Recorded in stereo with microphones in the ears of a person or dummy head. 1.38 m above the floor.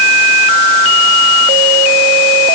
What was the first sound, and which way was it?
Only background noise.